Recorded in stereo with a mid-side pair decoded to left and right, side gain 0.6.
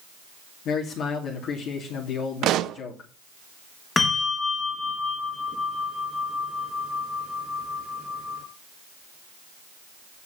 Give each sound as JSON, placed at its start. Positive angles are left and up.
{"t": 0.7, "sound": "a man speaking", "azimuth_deg": 55, "distance_m": 2.5}
{"t": 2.4, "sound": "a pop", "azimuth_deg": -60, "distance_m": 0.7}
{"t": 4.0, "sound": "a bell", "azimuth_deg": 20, "distance_m": 3.5}